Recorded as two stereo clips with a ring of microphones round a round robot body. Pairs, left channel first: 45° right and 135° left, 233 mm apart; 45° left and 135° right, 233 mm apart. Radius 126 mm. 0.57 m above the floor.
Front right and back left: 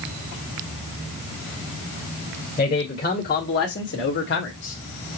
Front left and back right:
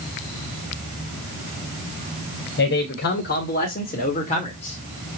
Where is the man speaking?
5° left, 3 m; by 5.2 s 25° right, 1.9 m.